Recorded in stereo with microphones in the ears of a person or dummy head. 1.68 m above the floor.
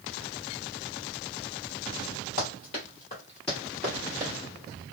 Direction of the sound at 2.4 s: 30° left (ahead or behind).